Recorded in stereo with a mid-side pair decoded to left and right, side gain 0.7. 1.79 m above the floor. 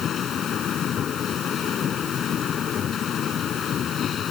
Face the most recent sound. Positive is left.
turn(degrees=40)